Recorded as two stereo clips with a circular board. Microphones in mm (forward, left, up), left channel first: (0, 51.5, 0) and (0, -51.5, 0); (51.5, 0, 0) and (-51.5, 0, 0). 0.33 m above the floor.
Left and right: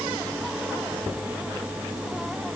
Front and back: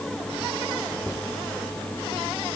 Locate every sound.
Only background noise.